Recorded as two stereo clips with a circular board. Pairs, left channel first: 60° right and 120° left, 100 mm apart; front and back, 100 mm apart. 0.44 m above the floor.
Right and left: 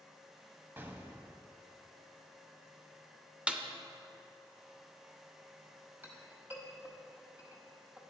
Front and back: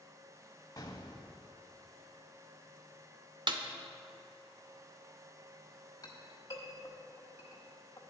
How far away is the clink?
About 1.4 m.